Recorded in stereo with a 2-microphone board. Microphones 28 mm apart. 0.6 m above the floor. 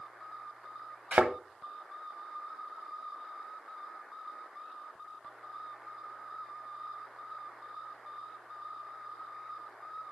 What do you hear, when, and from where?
1.1 s a thud: 75° right (ahead or behind), 1.0 m